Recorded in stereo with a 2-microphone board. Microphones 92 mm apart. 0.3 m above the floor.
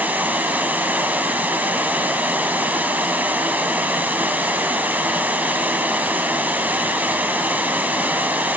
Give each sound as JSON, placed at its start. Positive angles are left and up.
{"t": 0.0, "sound": "running water", "side_deg": -20, "distance_m": 1.2}